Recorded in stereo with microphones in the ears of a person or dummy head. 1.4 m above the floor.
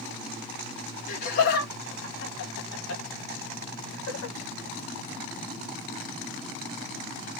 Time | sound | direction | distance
1.1 | laughter | 50° left (ahead or behind) | 2 m